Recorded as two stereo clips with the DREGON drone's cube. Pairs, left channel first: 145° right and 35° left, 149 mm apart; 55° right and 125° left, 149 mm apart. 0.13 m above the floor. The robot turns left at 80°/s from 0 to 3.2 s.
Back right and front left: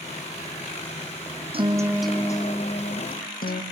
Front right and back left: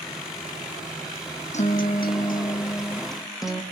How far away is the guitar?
About 2.5 m.